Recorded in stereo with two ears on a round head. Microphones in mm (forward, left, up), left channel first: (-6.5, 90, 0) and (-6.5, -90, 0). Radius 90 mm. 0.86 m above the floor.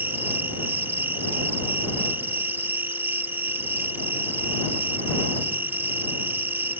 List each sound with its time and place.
0.0 s an insect: 10° right (ahead or behind)